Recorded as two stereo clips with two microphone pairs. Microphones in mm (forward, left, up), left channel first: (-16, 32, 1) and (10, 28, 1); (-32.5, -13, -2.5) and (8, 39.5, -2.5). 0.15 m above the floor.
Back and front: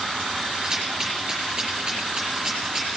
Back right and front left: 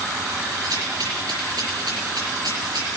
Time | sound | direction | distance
0.6 | a rattle | 55° left | 5 m